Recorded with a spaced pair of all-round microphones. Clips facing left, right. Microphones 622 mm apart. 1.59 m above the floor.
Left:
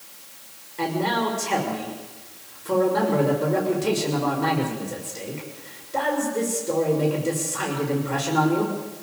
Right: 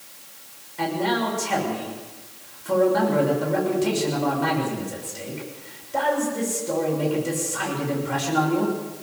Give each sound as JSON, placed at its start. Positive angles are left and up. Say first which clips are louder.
{"t": 0.8, "sound": "a man speaking", "louder": "right 1 dB", "side_deg": -15, "distance_m": 6.5}